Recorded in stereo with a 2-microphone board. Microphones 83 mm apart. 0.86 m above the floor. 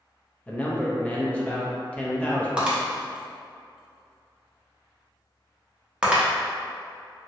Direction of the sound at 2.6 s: 10° right (ahead or behind).